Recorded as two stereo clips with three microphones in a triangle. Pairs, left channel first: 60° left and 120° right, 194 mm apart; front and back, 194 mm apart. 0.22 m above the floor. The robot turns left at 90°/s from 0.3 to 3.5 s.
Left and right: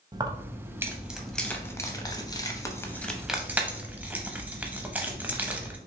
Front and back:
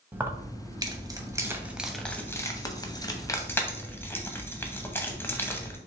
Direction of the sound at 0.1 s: 125° right.